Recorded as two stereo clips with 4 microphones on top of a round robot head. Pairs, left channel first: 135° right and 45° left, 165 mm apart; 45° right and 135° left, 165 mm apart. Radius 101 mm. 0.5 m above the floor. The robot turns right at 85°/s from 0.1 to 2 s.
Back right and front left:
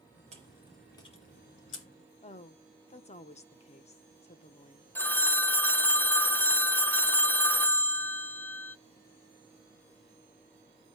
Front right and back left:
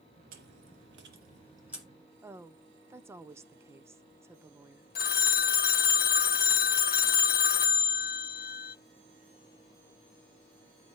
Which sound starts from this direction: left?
Chewing, at 0.3 s.